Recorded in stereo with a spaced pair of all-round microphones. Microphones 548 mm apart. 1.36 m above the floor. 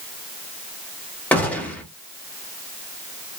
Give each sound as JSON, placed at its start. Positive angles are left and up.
{"t": 1.3, "sound": "a gunshot", "side_deg": 5, "distance_m": 0.8}